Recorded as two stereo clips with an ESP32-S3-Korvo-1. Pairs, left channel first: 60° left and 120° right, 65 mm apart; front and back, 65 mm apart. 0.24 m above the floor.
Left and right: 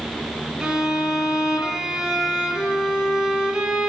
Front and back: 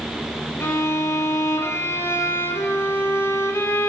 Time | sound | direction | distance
0.6 | a violin | 45° right | 0.6 m